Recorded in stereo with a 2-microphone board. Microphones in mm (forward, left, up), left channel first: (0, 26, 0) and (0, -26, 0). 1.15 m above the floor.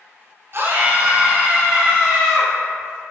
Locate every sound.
0.5 s a scream: 50° right (ahead or behind), 0.6 m; by 2.5 s 10° right (ahead or behind), 1.7 m